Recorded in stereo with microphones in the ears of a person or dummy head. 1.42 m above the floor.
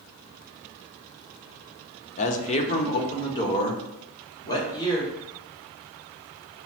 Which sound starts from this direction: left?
A man speaking, at 2.2 s.